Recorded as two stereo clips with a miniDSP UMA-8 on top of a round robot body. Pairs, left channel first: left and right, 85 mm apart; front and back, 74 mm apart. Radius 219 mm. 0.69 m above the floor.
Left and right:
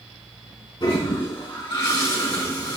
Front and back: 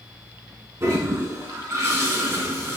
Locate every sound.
0.8 s a toilet flushing: 130° left, 4 m